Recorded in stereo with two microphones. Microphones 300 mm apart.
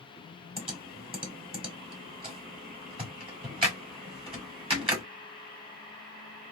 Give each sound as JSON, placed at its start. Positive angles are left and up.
{"t": 0.6, "sound": "typing on a keyboard", "side_deg": -20, "distance_m": 1.2}